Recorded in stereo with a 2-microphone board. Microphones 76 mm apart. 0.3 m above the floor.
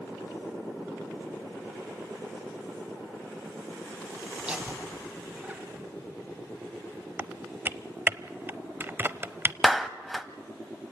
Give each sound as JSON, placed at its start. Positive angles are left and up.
{"t": 4.4, "sound": "laughter", "side_deg": -10, "distance_m": 2.0}
{"t": 7.2, "sound": "typing on a keyboard", "side_deg": -25, "distance_m": 0.6}
{"t": 9.6, "sound": "a clap", "side_deg": 0, "distance_m": 1.0}